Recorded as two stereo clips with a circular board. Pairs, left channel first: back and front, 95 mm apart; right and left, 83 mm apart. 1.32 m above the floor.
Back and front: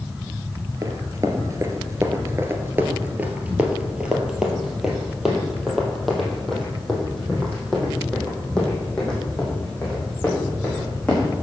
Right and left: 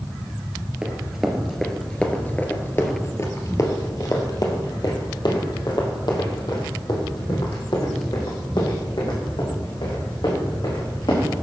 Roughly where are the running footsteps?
Ahead.